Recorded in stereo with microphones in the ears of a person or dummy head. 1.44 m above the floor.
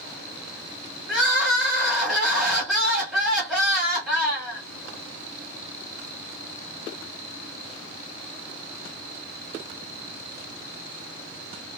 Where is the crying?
5° right (ahead or behind), 1.2 m.